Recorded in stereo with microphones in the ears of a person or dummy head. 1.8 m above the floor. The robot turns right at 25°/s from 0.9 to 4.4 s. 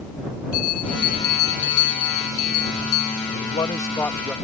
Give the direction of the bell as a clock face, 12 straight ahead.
10 o'clock.